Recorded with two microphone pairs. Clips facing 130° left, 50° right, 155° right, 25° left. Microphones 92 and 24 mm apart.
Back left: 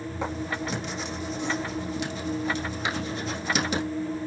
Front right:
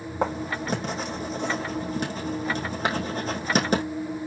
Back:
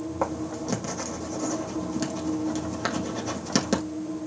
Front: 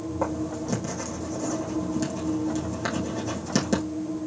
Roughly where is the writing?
Right.